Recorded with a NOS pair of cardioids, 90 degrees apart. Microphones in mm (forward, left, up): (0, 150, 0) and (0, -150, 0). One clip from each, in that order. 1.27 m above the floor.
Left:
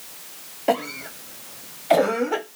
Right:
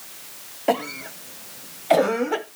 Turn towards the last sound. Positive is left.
turn(degrees=0)